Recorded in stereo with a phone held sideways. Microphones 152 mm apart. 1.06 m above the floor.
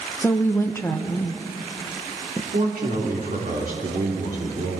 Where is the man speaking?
70° right (ahead or behind), 3.5 m.